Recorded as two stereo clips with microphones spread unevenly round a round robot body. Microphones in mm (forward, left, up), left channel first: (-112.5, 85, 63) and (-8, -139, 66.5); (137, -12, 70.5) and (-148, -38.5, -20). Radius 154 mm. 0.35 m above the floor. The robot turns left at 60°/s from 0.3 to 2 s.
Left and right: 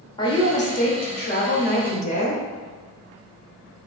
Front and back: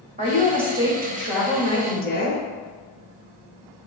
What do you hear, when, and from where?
0.2 s a woman speaking: 175° left, 1.2 m; by 2.4 s 75° left, 1.2 m